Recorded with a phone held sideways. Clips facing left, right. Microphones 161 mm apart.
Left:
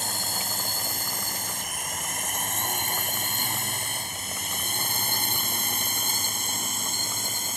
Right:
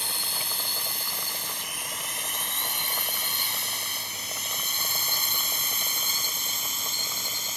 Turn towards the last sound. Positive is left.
turn(degrees=50)  # may be behind; listen again after turning